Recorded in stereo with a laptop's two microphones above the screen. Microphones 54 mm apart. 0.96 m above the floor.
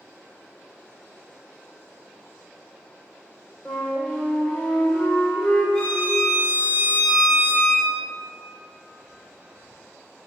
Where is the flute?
20° left (ahead or behind), 0.7 m.